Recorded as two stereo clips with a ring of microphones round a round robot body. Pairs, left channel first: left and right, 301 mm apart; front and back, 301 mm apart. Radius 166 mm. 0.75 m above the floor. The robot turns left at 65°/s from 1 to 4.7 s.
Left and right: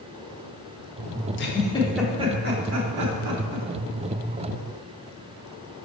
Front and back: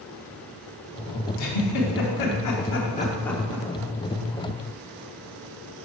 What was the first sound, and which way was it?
A giggle, 40° left.